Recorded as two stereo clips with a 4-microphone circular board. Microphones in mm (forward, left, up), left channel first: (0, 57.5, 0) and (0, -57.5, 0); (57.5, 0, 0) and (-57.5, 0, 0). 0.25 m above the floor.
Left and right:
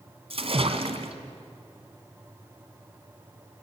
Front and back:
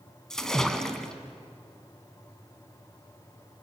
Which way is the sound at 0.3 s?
85° right.